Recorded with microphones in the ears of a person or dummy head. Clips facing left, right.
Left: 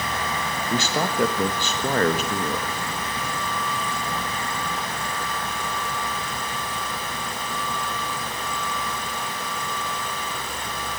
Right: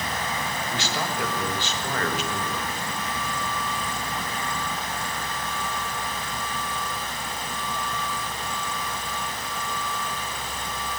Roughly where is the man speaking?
Left.